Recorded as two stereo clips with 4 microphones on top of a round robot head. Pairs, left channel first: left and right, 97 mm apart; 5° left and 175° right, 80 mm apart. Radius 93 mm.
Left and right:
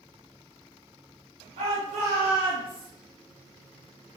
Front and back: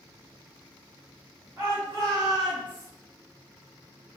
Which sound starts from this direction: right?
A shout, at 1.6 s.